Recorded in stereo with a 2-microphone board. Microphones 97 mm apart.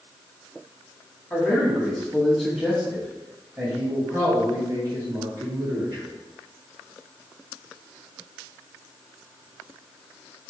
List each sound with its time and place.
1.3 s a man speaking: 15° left (ahead or behind), 1.5 m; by 6.1 s 40° right (ahead or behind), 2.0 m